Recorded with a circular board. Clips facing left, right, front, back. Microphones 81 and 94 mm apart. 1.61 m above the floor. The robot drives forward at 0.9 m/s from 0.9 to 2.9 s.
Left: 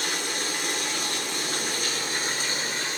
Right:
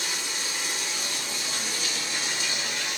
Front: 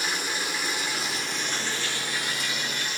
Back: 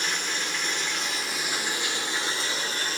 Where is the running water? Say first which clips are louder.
Left 4 dB, front 1 dB; 80° left, 1.9 m; by 3.0 s 135° left, 2.5 m.